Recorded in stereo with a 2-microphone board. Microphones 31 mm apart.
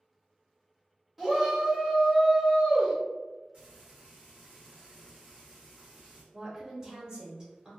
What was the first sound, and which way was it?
A shout, centre (ahead or behind).